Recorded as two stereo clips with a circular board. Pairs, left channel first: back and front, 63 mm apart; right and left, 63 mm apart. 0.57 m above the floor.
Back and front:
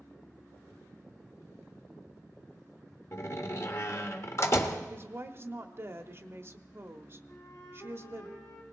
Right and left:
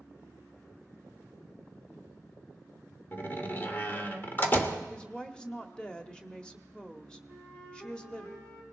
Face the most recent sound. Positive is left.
turn(degrees=-150)